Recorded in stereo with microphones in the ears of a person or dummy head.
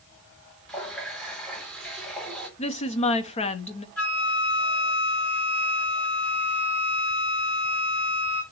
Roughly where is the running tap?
Centre.